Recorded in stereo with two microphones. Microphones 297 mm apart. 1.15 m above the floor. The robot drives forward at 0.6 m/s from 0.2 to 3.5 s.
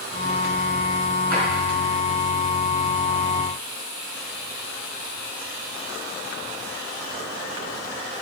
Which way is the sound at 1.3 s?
5° left (ahead or behind).